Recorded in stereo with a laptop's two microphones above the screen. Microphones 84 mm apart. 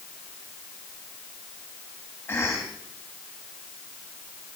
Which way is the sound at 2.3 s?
20° left (ahead or behind).